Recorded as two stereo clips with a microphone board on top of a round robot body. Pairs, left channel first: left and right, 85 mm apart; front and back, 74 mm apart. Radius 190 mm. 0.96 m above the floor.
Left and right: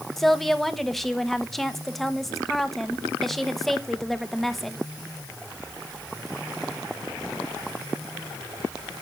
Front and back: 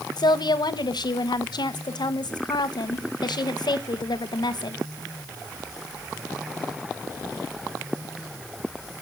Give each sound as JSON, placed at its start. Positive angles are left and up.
{"t": 0.2, "sound": "a woman speaking", "azimuth_deg": 5, "distance_m": 1.3}